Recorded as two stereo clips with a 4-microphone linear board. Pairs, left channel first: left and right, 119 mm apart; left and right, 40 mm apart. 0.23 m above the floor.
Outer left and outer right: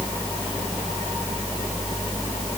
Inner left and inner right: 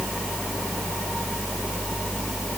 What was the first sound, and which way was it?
Only background noise.